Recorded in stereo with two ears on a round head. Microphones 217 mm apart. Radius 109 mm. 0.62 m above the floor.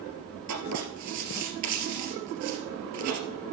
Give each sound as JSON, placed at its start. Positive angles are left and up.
{"t": 0.5, "sound": "writing", "side_deg": -80, "distance_m": 2.5}